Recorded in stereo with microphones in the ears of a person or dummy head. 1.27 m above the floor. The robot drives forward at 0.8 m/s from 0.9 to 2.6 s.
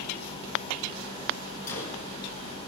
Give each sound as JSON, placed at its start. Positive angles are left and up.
{"t": 1.7, "sound": "a gunshot", "side_deg": 55, "distance_m": 5.5}